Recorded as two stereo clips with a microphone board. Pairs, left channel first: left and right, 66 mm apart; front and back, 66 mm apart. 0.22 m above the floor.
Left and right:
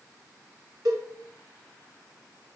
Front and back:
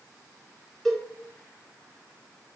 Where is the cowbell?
85° right, 1.7 m.